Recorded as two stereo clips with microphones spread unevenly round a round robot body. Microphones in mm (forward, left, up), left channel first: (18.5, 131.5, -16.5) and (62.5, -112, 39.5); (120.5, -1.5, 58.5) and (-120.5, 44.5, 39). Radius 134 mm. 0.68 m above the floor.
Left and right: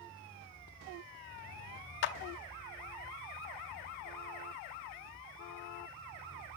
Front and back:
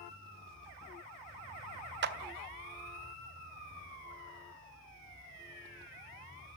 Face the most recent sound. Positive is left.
turn(degrees=130)